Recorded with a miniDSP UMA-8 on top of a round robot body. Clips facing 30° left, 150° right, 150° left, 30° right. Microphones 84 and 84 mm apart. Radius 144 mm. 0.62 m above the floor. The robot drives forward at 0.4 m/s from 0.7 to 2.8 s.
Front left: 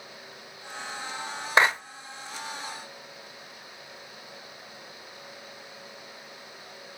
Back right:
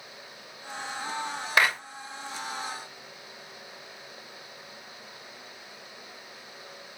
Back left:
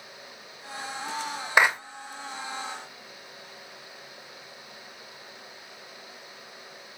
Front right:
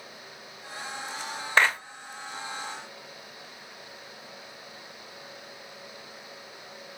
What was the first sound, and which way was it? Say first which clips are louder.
A clap: front left 3 dB, back left 2 dB; 75° left.